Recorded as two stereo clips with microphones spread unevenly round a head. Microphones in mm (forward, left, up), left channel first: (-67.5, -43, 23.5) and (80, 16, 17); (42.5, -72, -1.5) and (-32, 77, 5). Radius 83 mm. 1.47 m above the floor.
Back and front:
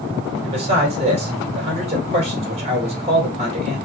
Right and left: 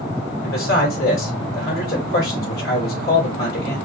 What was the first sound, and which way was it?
A man speaking, 30° right.